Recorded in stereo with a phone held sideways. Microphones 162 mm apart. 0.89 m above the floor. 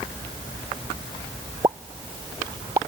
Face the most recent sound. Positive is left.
turn(degrees=-25)  # may be behind; listen again after turning